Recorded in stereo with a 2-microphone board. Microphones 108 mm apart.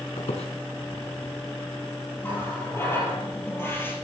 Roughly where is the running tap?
Left.